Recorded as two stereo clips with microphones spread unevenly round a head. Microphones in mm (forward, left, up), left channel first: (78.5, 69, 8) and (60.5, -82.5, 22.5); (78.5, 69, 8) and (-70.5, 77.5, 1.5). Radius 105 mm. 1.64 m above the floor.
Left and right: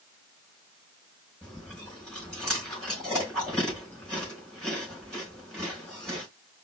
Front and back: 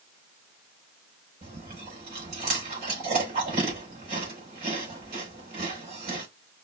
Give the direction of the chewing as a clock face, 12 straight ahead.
6 o'clock.